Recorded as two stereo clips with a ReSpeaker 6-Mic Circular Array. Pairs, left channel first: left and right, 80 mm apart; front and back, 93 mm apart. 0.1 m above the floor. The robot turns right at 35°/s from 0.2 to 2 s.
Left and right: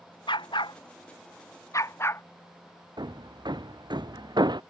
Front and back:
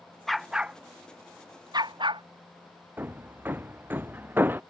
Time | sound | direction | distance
0.3 | a dog barking | 85° left | ?
3.0 | hammering | 115° right | ?